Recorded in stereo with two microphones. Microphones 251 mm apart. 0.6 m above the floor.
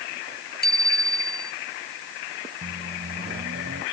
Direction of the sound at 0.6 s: 40° left (ahead or behind).